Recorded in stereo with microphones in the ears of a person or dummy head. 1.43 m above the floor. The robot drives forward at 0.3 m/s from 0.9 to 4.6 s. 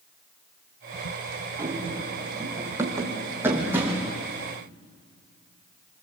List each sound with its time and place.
1.6 s running footsteps: 15° right (ahead or behind), 3 m; by 4.1 s 10° right (ahead or behind), 5 m